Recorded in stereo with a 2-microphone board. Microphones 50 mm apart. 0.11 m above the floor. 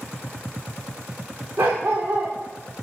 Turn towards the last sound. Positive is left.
turn(degrees=-85)